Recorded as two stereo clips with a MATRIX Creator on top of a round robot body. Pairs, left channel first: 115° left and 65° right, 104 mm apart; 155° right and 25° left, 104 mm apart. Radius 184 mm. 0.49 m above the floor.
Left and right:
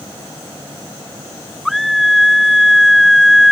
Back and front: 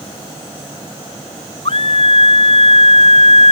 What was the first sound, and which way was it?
A scream, 160° right.